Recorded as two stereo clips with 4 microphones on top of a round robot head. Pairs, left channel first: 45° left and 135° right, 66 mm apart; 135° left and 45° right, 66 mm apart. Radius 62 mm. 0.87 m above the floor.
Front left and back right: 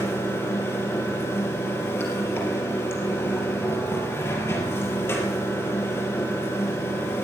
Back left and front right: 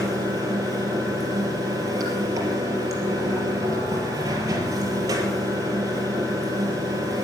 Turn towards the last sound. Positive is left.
turn(degrees=-10)